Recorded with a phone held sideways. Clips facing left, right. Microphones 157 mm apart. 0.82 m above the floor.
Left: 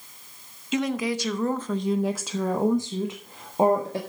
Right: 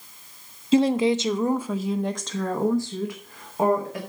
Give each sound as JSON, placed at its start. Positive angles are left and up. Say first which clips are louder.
{"t": 0.7, "sound": "a woman speaking", "louder": "right 7 dB", "side_deg": -30, "distance_m": 1.0}